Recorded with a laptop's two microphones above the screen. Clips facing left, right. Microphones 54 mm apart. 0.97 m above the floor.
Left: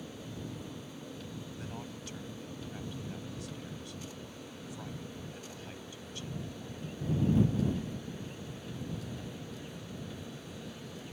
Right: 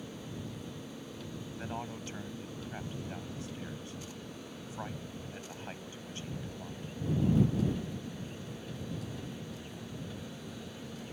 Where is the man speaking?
30° right (ahead or behind).